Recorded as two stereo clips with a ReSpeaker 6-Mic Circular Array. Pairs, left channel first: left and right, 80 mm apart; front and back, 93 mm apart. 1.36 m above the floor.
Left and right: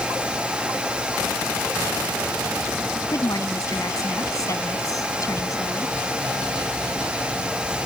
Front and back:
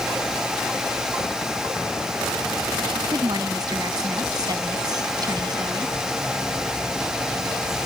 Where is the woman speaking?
135° left.